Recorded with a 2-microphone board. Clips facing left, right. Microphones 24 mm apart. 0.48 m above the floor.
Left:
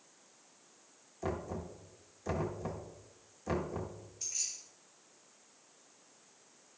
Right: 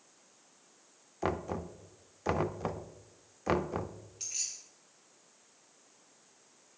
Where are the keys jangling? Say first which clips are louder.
Right 1 dB; 65° right (ahead or behind), 4 m.